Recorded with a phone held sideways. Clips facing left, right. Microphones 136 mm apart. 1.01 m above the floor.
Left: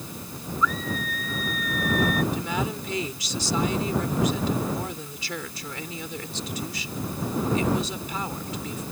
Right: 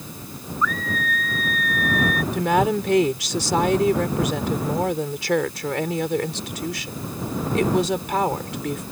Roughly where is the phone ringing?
I don't hear a phone ringing.